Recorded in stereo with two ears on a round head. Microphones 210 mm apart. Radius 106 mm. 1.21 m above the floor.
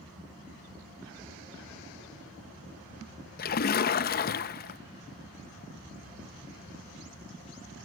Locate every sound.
3.4 s a splash: 40° left (ahead or behind), 0.6 m